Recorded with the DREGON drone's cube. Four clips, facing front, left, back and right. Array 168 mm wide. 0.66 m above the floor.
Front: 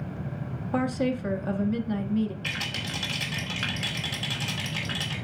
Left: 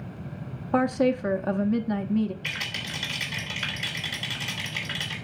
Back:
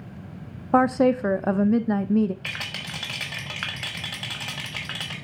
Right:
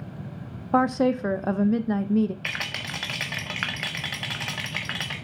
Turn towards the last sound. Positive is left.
turn(degrees=-115)